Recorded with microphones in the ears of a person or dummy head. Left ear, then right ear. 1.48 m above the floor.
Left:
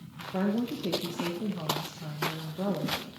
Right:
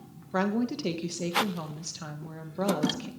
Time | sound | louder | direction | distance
0.3 | a woman speaking | right 3 dB | 50° right (ahead or behind) | 1.4 m